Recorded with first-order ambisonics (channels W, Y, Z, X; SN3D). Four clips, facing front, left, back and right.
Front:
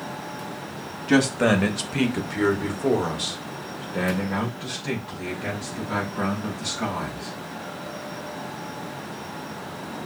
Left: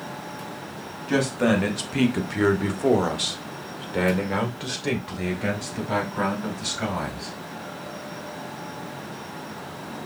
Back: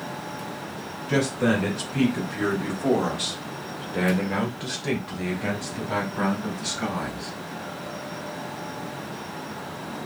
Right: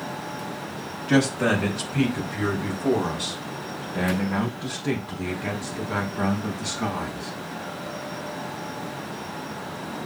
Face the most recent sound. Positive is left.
turn(degrees=115)